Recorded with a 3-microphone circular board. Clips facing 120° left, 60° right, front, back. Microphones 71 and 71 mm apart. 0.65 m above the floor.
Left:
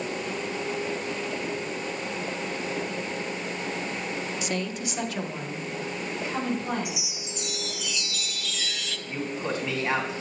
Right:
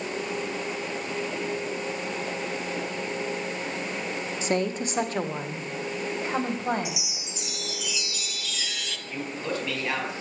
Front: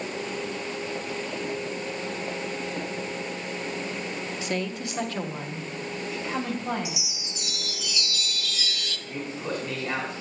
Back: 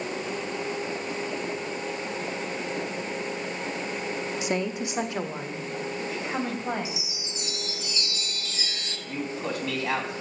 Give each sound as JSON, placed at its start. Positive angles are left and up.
{"t": 4.4, "sound": "a woman speaking", "azimuth_deg": -110, "distance_m": 0.8}
{"t": 6.8, "sound": "a chime", "azimuth_deg": -145, "distance_m": 0.9}
{"t": 9.1, "sound": "a man speaking", "azimuth_deg": -170, "distance_m": 4.5}